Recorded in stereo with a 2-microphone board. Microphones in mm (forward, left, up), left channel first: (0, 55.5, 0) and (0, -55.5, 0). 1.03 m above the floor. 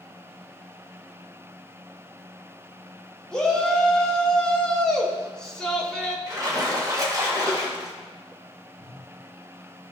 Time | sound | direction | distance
3.3 | a shout | 5° left (ahead or behind) | 1.6 m
6.3 | a splash | 30° right (ahead or behind) | 1.7 m
8.8 | a whoosh | 60° right (ahead or behind) | 4 m